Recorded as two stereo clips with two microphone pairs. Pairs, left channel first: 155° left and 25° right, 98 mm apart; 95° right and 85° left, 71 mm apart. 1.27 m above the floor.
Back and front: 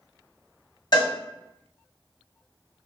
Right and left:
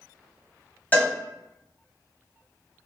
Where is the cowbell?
160° right, 1.5 m.